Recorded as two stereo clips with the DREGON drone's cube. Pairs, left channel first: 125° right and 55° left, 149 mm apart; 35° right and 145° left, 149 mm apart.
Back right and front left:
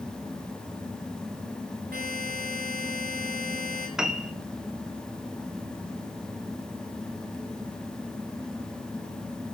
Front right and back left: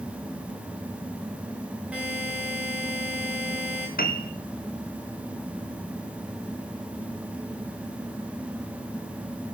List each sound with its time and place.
1.9 s a buzzer: 65° left, 4 m
4.0 s a piano: 30° right, 1.2 m